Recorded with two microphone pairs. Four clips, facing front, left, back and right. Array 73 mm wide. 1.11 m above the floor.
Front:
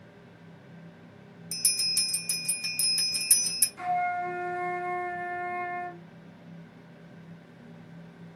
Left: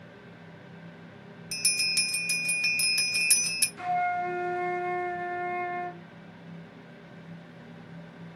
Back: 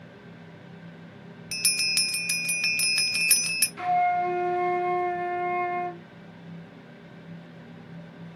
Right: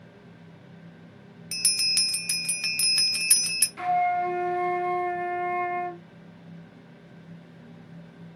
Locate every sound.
1.5 s a bell: 160° right, 0.6 m
3.8 s a flute: 105° right, 0.5 m